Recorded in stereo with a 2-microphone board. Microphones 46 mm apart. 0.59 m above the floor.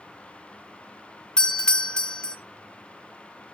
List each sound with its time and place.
1.4 s a doorbell: 20° left (ahead or behind), 1.0 m